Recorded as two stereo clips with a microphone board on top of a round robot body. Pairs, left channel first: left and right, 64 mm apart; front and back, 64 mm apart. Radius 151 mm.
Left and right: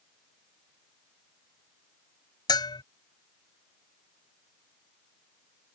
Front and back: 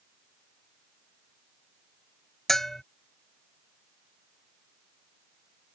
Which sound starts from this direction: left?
A bell, at 2.5 s.